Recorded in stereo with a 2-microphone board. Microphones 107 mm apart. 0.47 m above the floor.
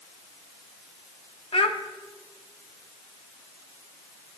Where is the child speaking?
55° left (ahead or behind), 0.5 m.